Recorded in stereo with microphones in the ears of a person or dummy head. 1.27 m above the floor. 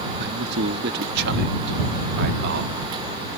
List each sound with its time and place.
0.2 s a man speaking: 55° right (ahead or behind); by 2.8 s 60° right (ahead or behind)